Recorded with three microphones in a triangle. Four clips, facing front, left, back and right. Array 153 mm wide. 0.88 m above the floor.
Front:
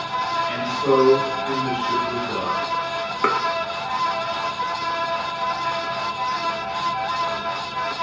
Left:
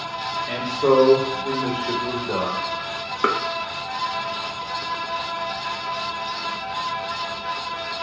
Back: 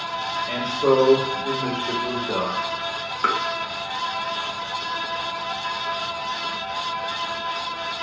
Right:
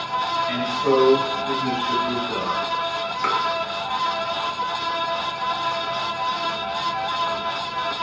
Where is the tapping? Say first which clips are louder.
Left 2 dB, front 2 dB; 45° left, 0.6 m.